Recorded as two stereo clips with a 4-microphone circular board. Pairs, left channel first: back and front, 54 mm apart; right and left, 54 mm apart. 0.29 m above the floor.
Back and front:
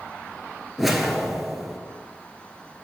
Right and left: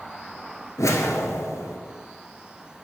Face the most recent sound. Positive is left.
turn(degrees=-85)